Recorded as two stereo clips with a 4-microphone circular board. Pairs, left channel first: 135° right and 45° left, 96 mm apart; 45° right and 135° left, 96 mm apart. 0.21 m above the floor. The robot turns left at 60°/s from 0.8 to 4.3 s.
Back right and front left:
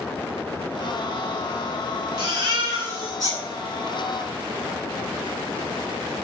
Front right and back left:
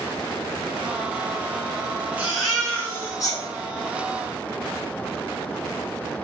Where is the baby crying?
65° left, 1.2 m; by 3.4 s 10° right, 1.2 m.